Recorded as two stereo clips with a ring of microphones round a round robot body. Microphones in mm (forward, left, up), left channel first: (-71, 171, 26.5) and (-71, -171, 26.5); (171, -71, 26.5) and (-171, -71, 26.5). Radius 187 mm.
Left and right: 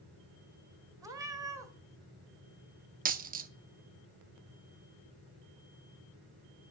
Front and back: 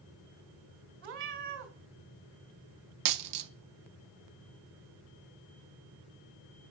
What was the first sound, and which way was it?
A cat meowing, 170° right.